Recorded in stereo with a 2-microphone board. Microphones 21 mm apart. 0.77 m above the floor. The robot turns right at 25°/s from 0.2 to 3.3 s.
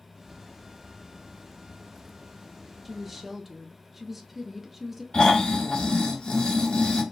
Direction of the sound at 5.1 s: 60° left (ahead or behind).